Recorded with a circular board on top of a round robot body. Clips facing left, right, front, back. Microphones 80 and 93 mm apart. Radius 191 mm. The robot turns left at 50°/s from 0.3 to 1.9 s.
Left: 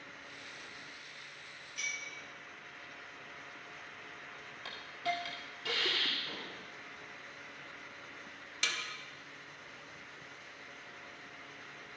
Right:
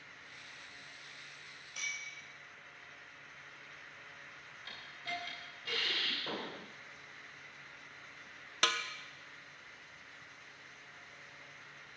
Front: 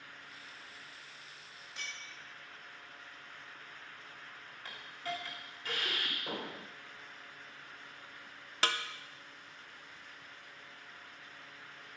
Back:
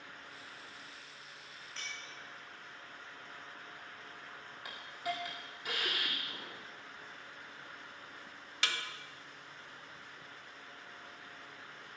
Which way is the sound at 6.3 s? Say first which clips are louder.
Right 3 dB, front 6 dB; 35° right.